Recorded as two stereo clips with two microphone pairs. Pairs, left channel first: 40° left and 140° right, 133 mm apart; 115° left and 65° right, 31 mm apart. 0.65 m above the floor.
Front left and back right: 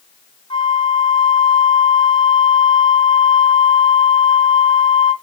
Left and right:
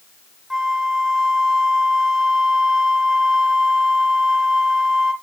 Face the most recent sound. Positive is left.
turn(degrees=20)